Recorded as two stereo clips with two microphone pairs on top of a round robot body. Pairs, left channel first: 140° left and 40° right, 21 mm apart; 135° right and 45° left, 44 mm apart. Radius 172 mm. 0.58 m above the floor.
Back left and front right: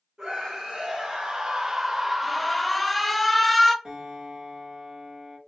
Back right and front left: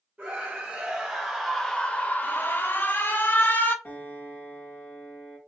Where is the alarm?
140° right, 0.8 m.